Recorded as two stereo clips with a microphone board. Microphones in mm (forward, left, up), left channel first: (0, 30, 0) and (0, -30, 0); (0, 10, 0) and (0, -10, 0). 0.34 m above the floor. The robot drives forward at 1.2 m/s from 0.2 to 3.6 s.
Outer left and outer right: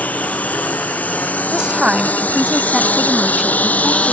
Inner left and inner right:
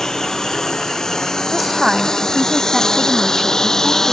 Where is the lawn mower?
25° left (ahead or behind).